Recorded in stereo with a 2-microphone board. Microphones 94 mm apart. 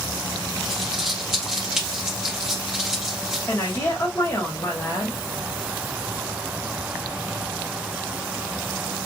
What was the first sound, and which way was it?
Crumpling, 5° right (ahead or behind).